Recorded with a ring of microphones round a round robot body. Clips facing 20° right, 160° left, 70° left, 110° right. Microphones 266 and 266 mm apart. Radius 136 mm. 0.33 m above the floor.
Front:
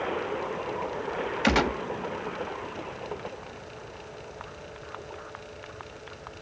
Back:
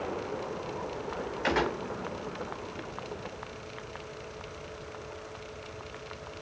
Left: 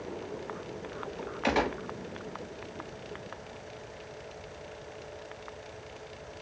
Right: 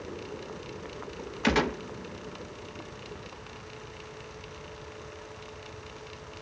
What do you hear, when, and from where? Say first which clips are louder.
1.4 s a gunshot: front 4 dB, right 3 dB; 50° right, 1.1 m